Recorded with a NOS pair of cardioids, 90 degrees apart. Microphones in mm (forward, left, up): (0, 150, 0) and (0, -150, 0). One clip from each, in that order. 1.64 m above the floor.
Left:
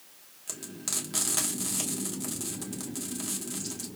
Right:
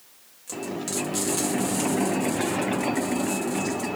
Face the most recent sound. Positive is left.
turn(degrees=25)